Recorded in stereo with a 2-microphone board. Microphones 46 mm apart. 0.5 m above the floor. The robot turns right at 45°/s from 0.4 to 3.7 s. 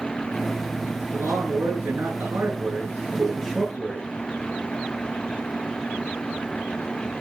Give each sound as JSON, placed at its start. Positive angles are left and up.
{"t": 1.1, "sound": "a man speaking", "azimuth_deg": -105, "distance_m": 8.5}
{"t": 3.2, "sound": "a whoosh", "side_deg": -30, "distance_m": 6.5}